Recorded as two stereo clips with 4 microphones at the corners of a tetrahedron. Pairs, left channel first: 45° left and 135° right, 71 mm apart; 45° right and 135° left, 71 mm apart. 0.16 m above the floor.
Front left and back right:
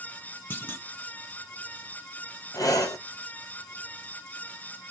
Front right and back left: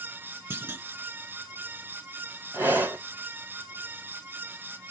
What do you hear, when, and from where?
0.5 s a clunk: 95° left, 0.6 m
2.5 s breathing: 75° left, 0.9 m